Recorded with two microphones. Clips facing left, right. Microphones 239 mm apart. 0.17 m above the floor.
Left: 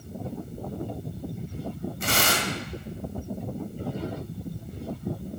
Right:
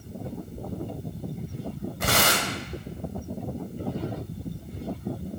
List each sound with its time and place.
2.0 s tearing paper: 75° right (ahead or behind), 1.8 m